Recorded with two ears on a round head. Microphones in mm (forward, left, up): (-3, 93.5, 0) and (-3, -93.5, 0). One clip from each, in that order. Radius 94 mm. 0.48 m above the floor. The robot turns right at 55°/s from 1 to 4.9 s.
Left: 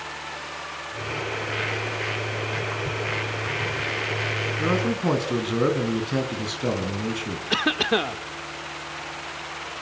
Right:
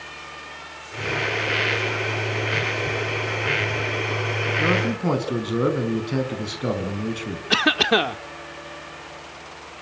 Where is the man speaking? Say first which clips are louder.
Right 2 dB; 10° right (ahead or behind), 4.5 m; by 7.4 s 5° left (ahead or behind), 4.5 m.